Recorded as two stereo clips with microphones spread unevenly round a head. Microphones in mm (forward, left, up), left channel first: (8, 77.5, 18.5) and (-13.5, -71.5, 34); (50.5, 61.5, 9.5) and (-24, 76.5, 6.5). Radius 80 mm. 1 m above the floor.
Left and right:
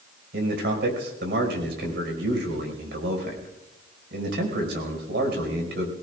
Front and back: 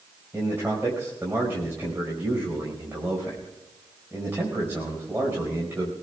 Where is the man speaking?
115° right, 4.5 m.